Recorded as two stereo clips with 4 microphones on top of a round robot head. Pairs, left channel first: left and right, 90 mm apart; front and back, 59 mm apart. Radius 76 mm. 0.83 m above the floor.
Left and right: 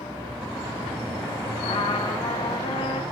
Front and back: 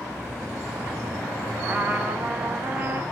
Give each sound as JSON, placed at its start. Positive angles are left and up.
{"t": 1.6, "sound": "a trumpet", "azimuth_deg": 115, "distance_m": 1.4}